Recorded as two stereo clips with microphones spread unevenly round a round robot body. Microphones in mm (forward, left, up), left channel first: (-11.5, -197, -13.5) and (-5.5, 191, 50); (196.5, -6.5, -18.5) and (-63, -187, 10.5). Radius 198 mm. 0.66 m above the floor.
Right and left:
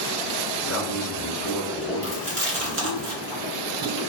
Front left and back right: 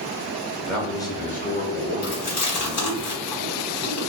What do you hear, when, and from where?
0.6 s a man speaking: 55° right, 0.9 m; by 3.0 s 20° left, 1.3 m
2.0 s chewing: 25° left, 1.7 m